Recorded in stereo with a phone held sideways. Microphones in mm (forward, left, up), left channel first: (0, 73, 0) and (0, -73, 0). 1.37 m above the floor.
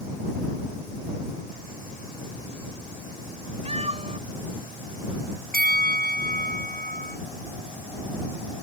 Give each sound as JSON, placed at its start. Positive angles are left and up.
{"t": 3.6, "sound": "a cat meowing", "side_deg": -45}
{"t": 5.5, "sound": "a bell", "side_deg": -80}